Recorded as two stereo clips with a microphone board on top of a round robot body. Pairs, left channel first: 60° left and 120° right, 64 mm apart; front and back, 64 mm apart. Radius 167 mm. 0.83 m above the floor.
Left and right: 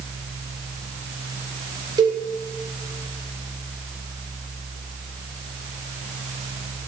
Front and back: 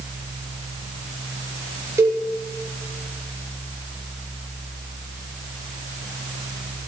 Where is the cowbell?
135° right, 1.3 m.